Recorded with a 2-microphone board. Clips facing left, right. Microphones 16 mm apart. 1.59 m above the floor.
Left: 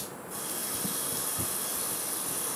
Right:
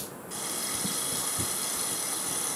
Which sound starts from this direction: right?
A running tap, at 0.3 s.